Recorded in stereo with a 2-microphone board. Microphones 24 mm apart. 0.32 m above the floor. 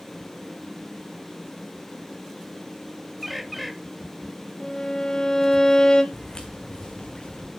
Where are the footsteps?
25° left (ahead or behind), 1.6 m; by 7.5 s 35° left (ahead or behind), 3 m.